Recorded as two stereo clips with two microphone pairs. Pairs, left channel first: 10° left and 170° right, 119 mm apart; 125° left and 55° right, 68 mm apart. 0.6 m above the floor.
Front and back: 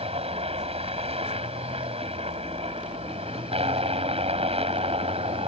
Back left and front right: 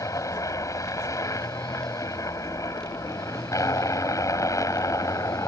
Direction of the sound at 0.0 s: 160° left.